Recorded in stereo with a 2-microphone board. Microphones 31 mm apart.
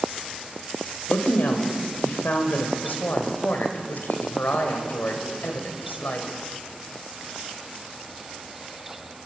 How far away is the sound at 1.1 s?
About 3.5 m.